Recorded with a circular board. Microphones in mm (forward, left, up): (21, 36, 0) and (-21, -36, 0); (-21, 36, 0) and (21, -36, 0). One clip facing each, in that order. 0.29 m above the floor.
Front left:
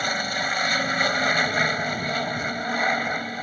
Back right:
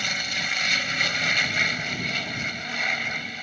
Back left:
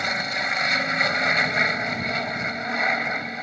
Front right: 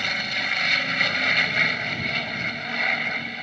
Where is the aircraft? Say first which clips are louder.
Front left 5 dB, back left 2 dB; 70° left.